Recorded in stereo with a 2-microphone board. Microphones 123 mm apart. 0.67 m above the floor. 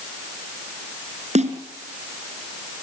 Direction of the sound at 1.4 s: 70° right (ahead or behind).